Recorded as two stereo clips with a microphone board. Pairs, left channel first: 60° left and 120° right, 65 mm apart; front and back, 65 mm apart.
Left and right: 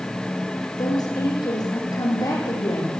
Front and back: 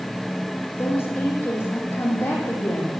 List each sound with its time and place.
0.8 s a woman speaking: 55° left, 9.5 m